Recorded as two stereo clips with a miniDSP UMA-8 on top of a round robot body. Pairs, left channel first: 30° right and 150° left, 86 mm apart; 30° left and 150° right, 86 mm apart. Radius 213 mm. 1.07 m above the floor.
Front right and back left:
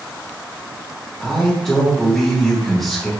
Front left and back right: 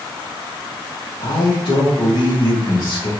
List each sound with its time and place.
1.2 s a man speaking: 55° left, 2 m